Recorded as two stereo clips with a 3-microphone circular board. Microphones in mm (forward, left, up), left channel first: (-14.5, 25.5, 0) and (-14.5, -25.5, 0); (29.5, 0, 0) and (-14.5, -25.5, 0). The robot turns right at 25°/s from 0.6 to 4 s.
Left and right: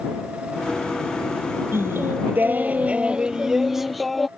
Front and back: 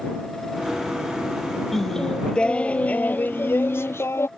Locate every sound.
1.7 s singing: 55° right; by 4.3 s straight ahead